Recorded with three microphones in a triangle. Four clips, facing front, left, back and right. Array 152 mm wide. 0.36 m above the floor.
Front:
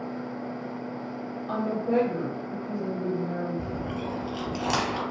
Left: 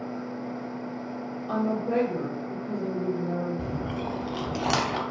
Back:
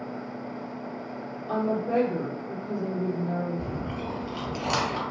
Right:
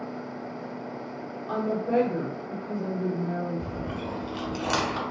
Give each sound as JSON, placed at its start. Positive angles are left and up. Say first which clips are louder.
{"t": 1.5, "sound": "a woman speaking", "louder": "even, back 1 dB", "azimuth_deg": -5, "distance_m": 1.7}
{"t": 3.6, "sound": "chewing", "louder": "left 2 dB, front 1 dB", "azimuth_deg": 85, "distance_m": 0.5}